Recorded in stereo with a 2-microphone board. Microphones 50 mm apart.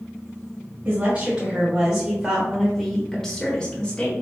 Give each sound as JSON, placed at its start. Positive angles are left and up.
{"t": 0.8, "sound": "a woman speaking", "side_deg": -35, "distance_m": 2.0}